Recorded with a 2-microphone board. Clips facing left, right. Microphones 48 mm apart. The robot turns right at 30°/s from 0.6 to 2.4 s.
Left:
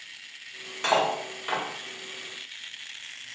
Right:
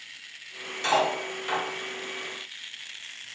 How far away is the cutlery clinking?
About 1.0 m.